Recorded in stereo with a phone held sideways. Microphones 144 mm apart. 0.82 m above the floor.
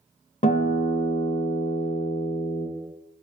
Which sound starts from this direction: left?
A guitar, at 0.4 s.